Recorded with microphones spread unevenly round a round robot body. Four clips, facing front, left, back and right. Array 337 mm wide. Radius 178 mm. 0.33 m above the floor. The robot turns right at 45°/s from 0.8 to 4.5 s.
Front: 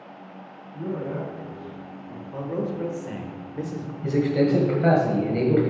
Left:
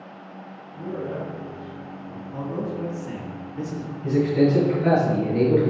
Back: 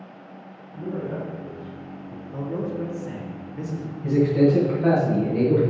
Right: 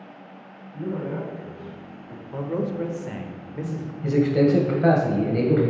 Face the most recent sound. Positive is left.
turn(degrees=-45)